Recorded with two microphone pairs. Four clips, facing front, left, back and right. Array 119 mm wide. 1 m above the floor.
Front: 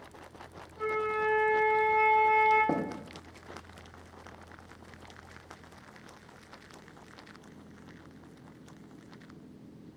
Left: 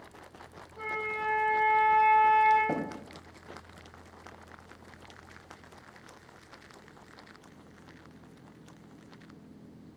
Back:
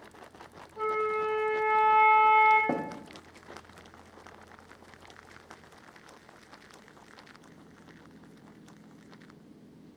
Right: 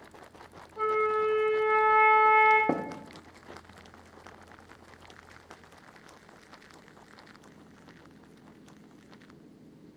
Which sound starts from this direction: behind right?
A flute, at 0.8 s.